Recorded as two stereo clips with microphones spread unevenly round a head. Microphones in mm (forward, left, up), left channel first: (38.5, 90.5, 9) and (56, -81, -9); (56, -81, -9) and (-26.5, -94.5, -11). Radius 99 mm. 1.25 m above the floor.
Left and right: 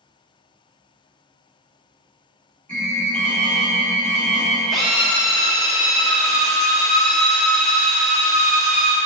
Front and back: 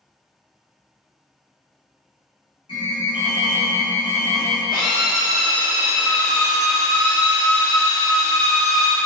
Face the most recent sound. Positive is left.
turn(degrees=10)